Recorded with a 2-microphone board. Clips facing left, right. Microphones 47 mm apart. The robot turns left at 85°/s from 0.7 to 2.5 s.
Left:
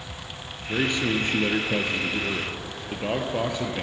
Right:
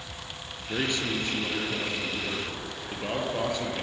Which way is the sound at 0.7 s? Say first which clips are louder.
Left 4 dB; 175° left.